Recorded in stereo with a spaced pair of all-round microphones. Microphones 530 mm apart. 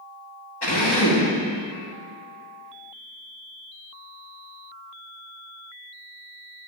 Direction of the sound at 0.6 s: 45° left (ahead or behind).